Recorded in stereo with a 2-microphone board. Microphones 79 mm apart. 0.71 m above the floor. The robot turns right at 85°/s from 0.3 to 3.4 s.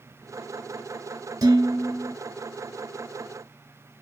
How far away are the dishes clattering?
About 1.1 m.